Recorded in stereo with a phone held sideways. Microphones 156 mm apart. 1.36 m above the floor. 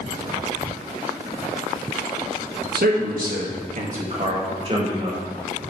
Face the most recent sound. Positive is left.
turn(degrees=-25)  # may be behind; listen again after turning